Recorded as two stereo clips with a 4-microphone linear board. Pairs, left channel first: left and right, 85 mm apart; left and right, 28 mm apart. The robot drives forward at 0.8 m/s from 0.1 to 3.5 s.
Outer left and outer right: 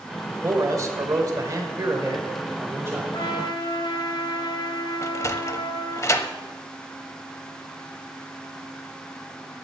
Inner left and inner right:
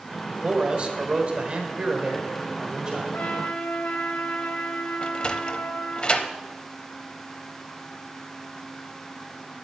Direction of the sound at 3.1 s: 60° left (ahead or behind).